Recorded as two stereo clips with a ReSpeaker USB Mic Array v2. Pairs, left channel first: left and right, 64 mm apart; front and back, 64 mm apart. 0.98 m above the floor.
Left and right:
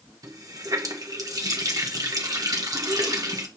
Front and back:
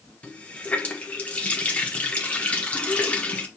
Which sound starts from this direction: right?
A running tap, at 0.2 s.